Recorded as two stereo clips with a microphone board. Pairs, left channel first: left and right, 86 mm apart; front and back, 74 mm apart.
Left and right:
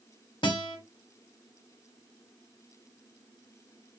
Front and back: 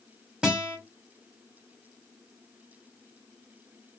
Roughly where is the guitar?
Left.